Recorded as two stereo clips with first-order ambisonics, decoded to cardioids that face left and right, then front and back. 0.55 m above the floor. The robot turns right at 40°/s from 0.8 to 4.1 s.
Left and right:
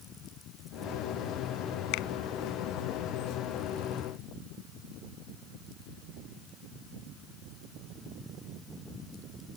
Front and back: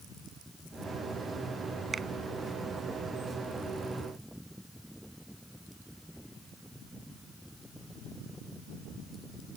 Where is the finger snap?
105° left; by 2.1 s 110° left.